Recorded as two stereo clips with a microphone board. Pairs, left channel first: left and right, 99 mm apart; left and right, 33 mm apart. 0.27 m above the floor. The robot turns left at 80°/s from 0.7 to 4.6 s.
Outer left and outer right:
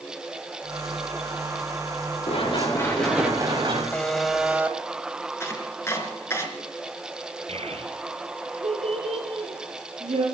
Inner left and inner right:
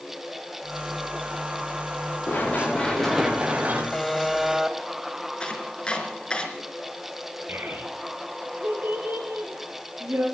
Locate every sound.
2.3 s running footsteps: 75° left (ahead or behind), 9 m; by 3.8 s 60° right (ahead or behind), 8.5 m
3.9 s a buzzer: 25° left, 1.0 m; by 4.8 s 30° right, 1.0 m
5.4 s chopping: 25° left (ahead or behind), 3 m
7.5 s a child speaking: 75° right (ahead or behind), 3.5 m